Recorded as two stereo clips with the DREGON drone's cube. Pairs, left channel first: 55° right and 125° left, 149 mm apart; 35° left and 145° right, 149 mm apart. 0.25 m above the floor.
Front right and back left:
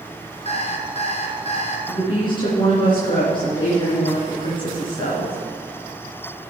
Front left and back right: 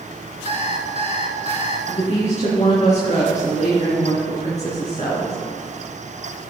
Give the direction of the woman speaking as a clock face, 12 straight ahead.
12 o'clock.